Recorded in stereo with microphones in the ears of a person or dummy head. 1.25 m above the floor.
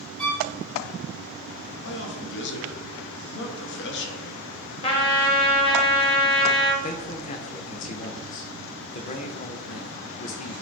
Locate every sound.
0.2 s a violin: 5° left (ahead or behind), 2.5 m
1.9 s a man speaking: 60° left (ahead or behind), 1.1 m
4.8 s a trumpet: 25° left (ahead or behind), 0.8 m
6.8 s a man speaking: 35° left (ahead or behind), 0.7 m